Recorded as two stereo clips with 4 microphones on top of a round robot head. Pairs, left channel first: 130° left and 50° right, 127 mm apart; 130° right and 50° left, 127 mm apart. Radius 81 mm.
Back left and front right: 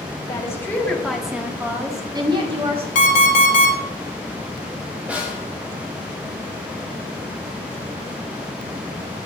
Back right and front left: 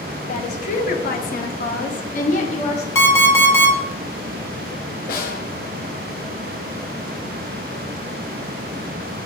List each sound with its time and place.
0.3 s a woman speaking: 165° right, 2 m; by 2.9 s 90° right, 2.5 m
3.0 s an alarm clock: 160° left, 2 m
5.1 s a snare drum: 130° right, 2 m